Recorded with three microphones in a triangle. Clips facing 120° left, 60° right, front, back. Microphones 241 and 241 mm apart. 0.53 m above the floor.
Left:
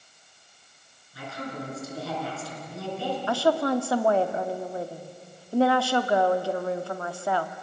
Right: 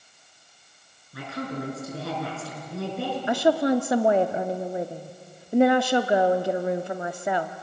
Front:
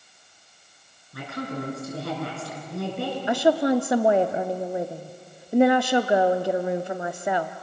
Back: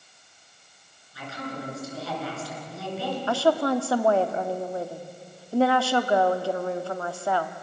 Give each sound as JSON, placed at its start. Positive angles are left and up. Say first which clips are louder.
{"t": 1.1, "sound": "a woman speaking", "louder": "right 4 dB, front 4 dB", "azimuth_deg": -35, "distance_m": 6.5}
{"t": 3.3, "sound": "a woman speaking", "louder": "right 3 dB, front 3 dB", "azimuth_deg": -30, "distance_m": 0.6}